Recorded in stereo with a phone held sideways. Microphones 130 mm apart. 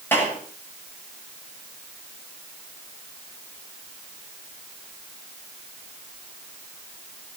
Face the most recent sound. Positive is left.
turn(degrees=15)  # may be behind; listen again after turning